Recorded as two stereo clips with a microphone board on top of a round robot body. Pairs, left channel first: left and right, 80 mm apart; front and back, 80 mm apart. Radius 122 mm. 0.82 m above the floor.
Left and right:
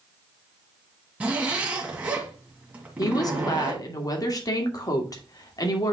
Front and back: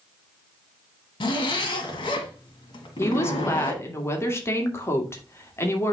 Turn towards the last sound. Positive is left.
turn(degrees=55)